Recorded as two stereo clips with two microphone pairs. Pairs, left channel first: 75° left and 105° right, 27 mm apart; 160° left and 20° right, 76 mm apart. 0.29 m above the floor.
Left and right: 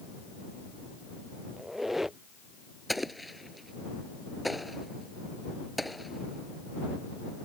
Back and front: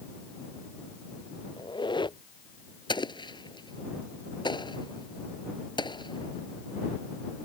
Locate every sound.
1.6 s a squeak: 170° left
2.9 s an explosion: 165° left